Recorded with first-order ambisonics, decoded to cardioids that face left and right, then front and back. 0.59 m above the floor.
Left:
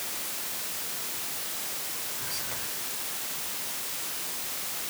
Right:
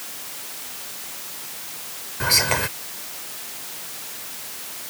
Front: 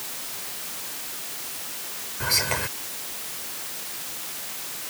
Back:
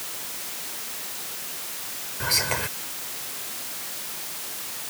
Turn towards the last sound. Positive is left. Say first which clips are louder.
# right 20 dB, even
turn(degrees=-90)